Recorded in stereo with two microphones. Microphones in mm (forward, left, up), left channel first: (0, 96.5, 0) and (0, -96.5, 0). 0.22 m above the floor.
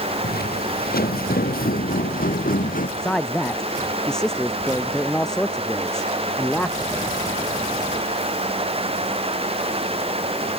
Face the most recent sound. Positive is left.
turn(degrees=5)  # may be behind; listen again after turning